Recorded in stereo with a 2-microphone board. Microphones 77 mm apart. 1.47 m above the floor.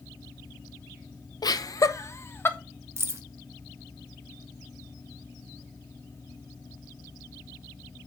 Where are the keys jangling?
35° right (ahead or behind), 0.8 m.